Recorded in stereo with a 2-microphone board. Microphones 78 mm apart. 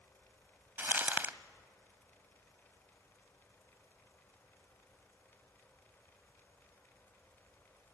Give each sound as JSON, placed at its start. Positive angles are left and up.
{"t": 0.8, "sound": "crumpling", "side_deg": -30, "distance_m": 0.6}